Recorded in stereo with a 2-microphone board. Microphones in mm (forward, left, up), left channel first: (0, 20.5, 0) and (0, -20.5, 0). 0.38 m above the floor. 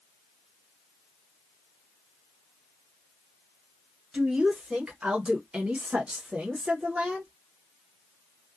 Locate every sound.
4.1 s a woman speaking: 15° right (ahead or behind), 1.3 m; by 7.3 s 20° right (ahead or behind), 1.3 m